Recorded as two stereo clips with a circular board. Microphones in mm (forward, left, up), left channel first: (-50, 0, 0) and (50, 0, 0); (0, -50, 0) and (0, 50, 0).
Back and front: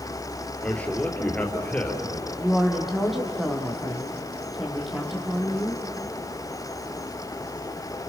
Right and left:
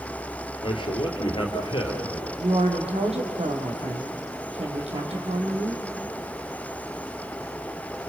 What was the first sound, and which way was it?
A man speaking, 105° right.